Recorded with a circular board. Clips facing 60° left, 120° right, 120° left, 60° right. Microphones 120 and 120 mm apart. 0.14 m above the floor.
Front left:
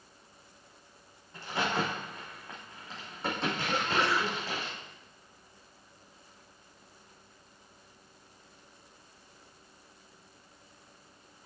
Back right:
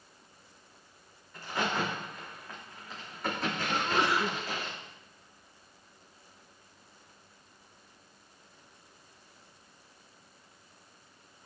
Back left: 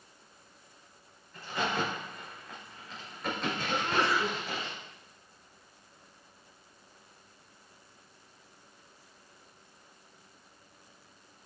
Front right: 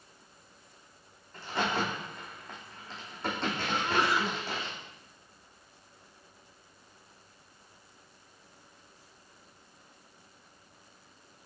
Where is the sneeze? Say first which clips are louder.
Back right 1 dB, even; 100° right, 1.7 m.